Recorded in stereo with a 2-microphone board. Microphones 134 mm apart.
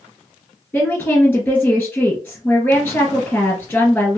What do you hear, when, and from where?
0.7 s a woman speaking: 10° left (ahead or behind), 2.0 m